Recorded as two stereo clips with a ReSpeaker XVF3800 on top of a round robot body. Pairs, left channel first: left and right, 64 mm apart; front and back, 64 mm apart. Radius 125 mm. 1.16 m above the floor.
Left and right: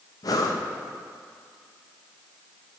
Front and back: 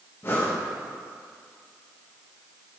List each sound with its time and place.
0.2 s breathing: 60° left, 0.8 m